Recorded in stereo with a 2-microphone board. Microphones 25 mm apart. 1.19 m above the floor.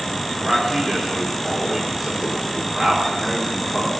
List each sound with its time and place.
0.4 s a man speaking: 10° right (ahead or behind), 3 m